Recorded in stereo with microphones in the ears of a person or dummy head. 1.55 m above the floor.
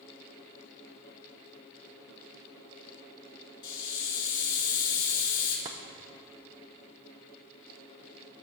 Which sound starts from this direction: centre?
Tapping, at 5.7 s.